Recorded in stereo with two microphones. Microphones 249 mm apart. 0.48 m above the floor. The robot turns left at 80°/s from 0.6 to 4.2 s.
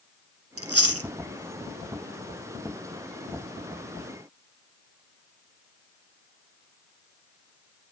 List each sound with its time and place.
0.6 s chewing: 70° right (ahead or behind), 1.2 m